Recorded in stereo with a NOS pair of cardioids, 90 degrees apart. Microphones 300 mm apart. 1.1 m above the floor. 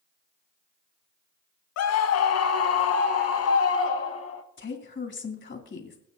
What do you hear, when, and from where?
1.8 s a scream: 60° left, 0.6 m; by 4.4 s 50° left, 2.0 m
4.6 s a woman speaking: 40° left, 2.5 m